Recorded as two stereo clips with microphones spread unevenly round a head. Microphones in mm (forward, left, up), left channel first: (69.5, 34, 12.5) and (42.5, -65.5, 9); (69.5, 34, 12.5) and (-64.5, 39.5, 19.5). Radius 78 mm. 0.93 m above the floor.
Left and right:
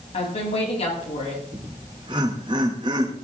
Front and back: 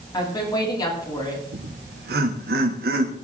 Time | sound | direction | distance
0.1 | a woman speaking | 55° left | 7.5 m
1.5 | laughter | 165° right | 2.5 m